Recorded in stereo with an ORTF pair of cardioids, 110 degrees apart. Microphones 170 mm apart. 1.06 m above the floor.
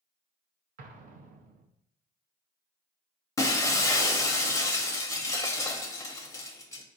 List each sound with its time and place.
0.8 s an explosion: 55° right, 0.8 m
3.4 s breaking glass: 20° left, 0.8 m